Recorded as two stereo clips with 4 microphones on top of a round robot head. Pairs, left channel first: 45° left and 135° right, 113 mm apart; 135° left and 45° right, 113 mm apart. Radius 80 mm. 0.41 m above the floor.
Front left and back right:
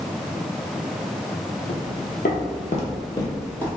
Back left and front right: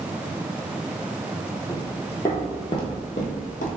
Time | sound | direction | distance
1.7 | footsteps | 50° left | 0.9 m